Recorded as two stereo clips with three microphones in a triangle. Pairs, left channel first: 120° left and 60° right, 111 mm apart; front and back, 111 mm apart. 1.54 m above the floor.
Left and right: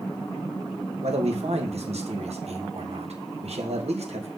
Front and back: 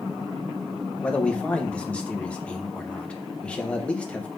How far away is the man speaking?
About 1.3 m.